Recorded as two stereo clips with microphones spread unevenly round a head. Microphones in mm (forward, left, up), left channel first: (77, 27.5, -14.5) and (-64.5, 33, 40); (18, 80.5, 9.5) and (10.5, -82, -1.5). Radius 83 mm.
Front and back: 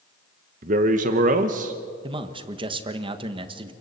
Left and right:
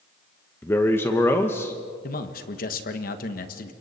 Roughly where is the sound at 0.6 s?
Behind.